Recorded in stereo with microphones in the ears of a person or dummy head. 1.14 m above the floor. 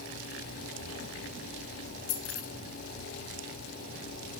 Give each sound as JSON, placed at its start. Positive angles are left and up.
{"t": 2.1, "sound": "keys jangling", "side_deg": 50, "distance_m": 1.2}